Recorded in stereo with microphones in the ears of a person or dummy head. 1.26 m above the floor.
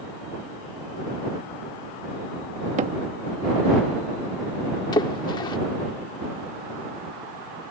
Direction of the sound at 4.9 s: 25° left (ahead or behind).